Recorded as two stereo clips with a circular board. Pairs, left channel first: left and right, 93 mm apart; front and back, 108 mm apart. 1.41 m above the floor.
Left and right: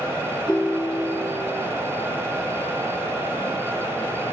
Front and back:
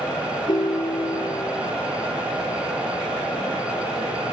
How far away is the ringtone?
About 0.7 m.